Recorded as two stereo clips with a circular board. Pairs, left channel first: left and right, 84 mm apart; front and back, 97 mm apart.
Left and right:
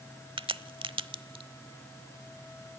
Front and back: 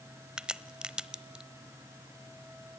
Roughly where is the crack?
Right.